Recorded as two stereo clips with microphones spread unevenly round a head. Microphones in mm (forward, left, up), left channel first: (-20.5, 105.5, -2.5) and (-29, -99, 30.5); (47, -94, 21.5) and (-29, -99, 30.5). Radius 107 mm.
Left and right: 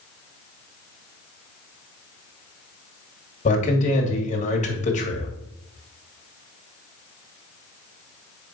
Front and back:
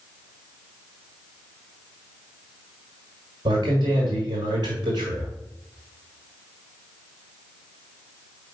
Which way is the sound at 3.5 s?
135° left.